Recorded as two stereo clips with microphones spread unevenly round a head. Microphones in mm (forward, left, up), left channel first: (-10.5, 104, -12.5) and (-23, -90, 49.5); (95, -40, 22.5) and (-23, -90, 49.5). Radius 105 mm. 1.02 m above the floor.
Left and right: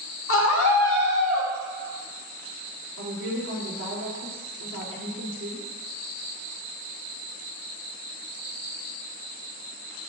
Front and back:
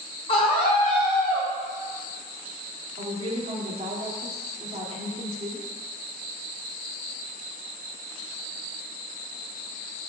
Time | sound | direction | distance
0.3 | a scream | 80° left | 2 m
3.0 | a woman speaking | 115° right | 2.5 m